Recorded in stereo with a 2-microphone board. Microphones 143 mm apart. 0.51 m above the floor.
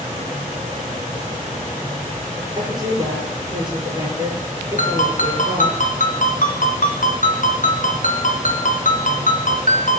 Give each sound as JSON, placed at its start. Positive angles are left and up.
{"t": 2.5, "sound": "a woman speaking", "side_deg": -30, "distance_m": 8.5}
{"t": 4.8, "sound": "a ringtone", "side_deg": 70, "distance_m": 2.5}